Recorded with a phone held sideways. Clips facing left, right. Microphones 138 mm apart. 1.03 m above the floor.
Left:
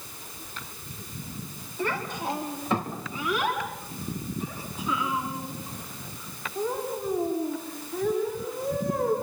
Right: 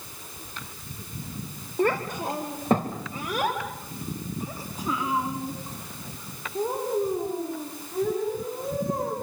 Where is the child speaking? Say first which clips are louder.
Right 5 dB; 45° right (ahead or behind), 2 m; by 9.1 s 40° right (ahead or behind), 8.5 m.